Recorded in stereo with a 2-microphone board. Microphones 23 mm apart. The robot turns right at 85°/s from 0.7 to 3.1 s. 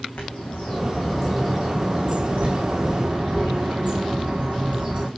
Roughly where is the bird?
Behind left.